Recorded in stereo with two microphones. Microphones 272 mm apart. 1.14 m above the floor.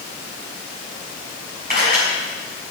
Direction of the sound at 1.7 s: 35° right (ahead or behind).